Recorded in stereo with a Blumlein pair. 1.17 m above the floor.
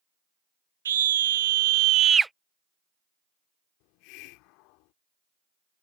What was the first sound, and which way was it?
A scream, 65° right.